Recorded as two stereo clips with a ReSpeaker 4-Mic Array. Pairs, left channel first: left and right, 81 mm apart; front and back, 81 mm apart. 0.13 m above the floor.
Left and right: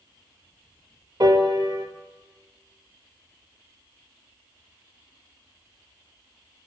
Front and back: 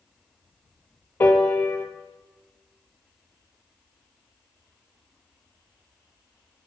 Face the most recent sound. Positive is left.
turn(degrees=-60)